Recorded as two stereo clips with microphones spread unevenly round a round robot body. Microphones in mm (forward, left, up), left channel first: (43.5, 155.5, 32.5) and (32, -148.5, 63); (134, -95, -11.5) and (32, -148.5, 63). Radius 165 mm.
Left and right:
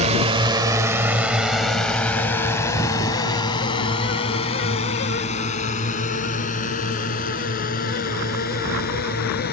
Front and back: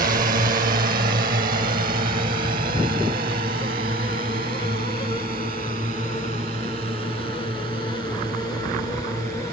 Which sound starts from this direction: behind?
A drone, at 0.0 s.